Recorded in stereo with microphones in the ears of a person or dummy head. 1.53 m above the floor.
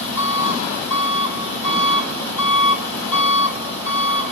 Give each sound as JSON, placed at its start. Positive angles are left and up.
{"t": 0.0, "sound": "an engine running", "side_deg": 15, "distance_m": 7.0}